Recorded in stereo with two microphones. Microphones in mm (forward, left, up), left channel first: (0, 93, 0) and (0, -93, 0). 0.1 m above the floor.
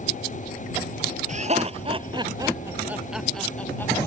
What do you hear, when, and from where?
1.3 s laughter: 45° right (ahead or behind); by 4.1 s 15° left (ahead or behind)